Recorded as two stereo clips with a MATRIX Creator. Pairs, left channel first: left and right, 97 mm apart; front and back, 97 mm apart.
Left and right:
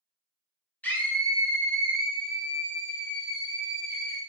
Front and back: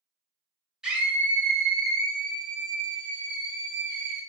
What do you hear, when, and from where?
0.8 s a scream: 110° left, 1.2 m; by 4.2 s 160° right, 3 m